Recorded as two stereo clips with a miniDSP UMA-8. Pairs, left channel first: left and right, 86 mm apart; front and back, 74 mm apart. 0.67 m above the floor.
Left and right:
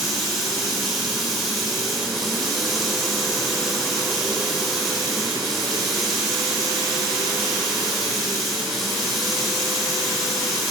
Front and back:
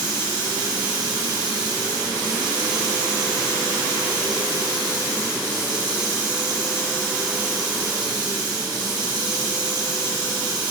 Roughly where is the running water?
Behind.